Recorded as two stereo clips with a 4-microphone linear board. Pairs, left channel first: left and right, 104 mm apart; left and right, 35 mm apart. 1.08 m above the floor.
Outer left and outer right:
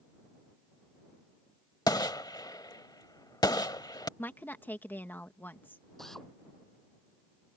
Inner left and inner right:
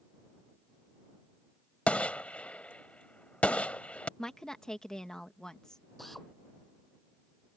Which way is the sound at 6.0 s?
5° left (ahead or behind).